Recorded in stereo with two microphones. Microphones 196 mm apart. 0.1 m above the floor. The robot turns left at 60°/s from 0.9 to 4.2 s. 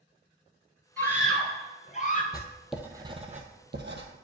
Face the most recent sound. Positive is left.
turn(degrees=-90)